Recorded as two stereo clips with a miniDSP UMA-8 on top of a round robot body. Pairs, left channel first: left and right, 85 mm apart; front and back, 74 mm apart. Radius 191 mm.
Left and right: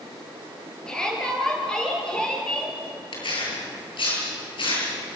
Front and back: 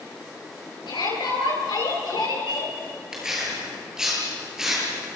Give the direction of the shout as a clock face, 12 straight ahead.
12 o'clock.